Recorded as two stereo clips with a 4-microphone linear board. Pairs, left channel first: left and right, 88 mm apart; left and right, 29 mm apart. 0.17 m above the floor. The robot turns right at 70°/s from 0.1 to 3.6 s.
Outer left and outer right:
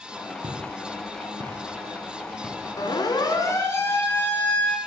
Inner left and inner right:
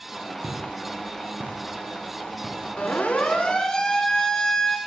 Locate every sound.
0.4 s footsteps: 70° right (ahead or behind), 4 m; by 2.7 s 10° left (ahead or behind), 3.5 m
2.8 s a siren: 45° left (ahead or behind), 2.5 m; by 4.8 s 20° left (ahead or behind), 3 m